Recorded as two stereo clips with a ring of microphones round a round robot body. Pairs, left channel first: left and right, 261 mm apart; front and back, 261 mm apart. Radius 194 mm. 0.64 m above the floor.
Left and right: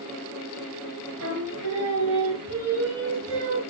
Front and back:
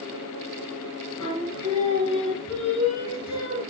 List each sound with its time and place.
1.2 s singing: 50° right, 3.5 m